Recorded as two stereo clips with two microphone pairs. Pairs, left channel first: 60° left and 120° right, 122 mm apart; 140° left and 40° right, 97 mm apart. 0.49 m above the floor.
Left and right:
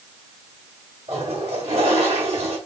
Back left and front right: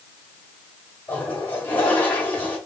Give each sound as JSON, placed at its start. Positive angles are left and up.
{"t": 1.1, "sound": "a toilet flushing", "azimuth_deg": -145, "distance_m": 1.4}